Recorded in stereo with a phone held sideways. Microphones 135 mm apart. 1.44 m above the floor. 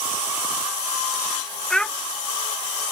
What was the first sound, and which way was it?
A child speaking, 5° left (ahead or behind).